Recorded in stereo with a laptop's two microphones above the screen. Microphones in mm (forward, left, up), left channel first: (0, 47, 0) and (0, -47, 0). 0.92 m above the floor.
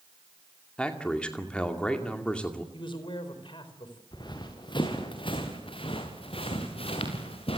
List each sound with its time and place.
0.8 s a man speaking: 10° left (ahead or behind), 2.5 m
2.7 s a man speaking: 60° left (ahead or behind), 4 m
4.1 s running footsteps: 50° left (ahead or behind), 4.5 m; by 7.6 s 80° left, 5 m